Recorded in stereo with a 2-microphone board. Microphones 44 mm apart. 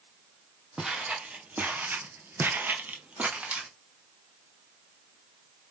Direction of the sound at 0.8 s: 25° right (ahead or behind).